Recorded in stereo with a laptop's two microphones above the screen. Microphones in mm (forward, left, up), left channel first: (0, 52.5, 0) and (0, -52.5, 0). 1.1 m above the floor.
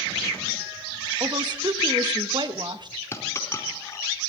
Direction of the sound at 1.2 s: 45° right (ahead or behind).